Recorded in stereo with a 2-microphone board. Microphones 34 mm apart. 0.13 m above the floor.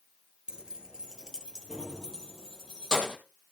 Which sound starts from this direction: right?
Keys jangling, at 0.5 s.